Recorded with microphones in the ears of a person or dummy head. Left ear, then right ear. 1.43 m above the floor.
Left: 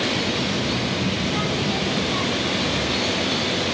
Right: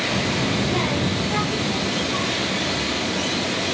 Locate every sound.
0.1 s a child speaking: 75° right (ahead or behind), 0.8 m; by 3.7 s 20° left (ahead or behind), 2 m